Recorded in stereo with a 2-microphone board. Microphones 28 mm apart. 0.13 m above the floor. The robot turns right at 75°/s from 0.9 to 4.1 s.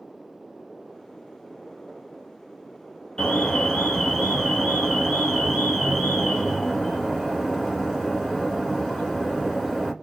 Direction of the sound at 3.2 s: 105° left.